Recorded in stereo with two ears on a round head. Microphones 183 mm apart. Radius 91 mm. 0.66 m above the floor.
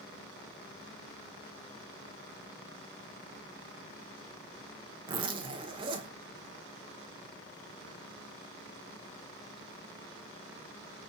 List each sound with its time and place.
5.1 s a zipper: 25° right (ahead or behind), 0.9 m